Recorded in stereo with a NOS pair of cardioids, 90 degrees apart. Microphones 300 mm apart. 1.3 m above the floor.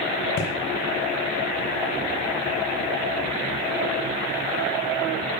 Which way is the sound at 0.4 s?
50° left.